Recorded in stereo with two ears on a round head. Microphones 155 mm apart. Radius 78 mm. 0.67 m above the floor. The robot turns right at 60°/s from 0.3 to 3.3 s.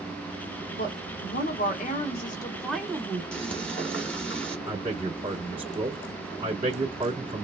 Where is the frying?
5° left (ahead or behind), 2 m.